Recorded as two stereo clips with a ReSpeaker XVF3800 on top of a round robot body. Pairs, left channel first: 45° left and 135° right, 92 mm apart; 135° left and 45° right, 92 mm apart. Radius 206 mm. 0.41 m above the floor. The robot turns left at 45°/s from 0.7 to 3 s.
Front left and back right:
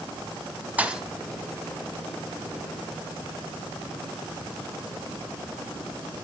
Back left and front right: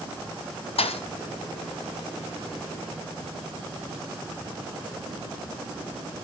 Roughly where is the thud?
Behind left.